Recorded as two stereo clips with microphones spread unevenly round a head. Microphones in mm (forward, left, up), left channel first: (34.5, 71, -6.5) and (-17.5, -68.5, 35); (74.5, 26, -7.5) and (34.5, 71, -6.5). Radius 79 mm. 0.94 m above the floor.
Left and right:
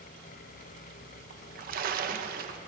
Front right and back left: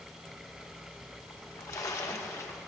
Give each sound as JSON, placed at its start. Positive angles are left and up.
{"t": 1.3, "sound": "a splash", "azimuth_deg": -85, "distance_m": 0.7}